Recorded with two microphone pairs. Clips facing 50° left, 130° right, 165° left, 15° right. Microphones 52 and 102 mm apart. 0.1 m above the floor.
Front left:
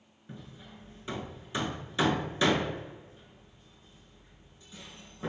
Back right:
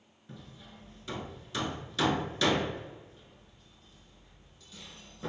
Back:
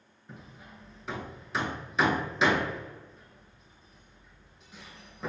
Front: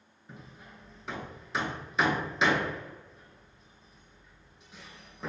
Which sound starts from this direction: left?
Hammering, at 0.3 s.